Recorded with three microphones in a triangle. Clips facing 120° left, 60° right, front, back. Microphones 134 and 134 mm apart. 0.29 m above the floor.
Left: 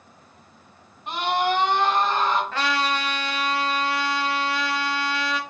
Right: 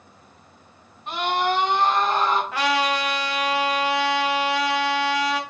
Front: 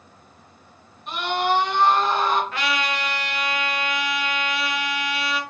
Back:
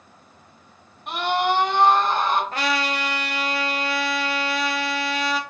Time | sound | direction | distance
1.1 | a scream | 165° right | 1.9 m
2.5 | a trumpet | 135° right | 0.8 m